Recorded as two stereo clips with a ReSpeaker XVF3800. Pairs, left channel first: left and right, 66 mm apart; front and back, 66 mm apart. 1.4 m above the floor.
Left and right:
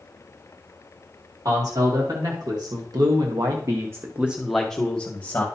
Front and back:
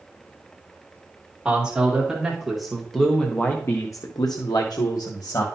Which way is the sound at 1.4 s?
105° right.